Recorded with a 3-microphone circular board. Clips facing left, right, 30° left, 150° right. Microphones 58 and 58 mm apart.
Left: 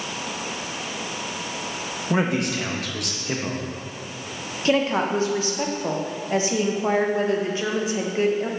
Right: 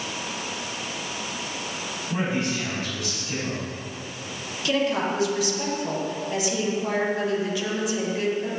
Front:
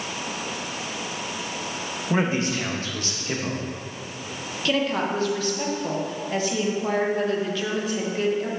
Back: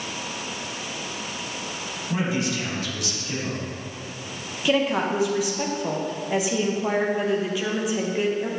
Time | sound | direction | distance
2.1 | a man speaking | 80° left | 1.0 m
4.7 | a woman speaking | 135° left | 0.8 m